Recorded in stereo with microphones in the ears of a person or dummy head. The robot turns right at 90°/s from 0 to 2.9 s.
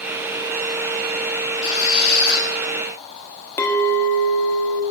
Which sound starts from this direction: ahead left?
A squeak, at 1.6 s.